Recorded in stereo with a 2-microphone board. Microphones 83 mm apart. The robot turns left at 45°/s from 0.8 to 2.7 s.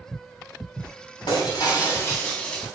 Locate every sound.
1.3 s breaking glass: 65° left, 8.5 m; by 2.6 s 5° left, 8.5 m